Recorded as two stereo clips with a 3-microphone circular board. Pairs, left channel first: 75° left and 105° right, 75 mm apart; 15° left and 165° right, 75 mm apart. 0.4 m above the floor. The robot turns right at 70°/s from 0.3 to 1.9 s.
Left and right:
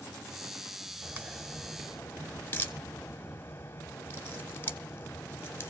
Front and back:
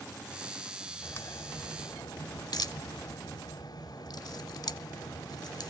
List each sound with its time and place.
1.0 s a crack: 45° right, 1.2 m; by 5.7 s 15° left, 1.2 m